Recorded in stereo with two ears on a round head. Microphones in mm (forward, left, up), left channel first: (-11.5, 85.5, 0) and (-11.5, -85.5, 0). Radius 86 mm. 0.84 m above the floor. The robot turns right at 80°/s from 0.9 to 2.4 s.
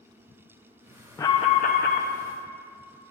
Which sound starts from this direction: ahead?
An alarm, at 1.2 s.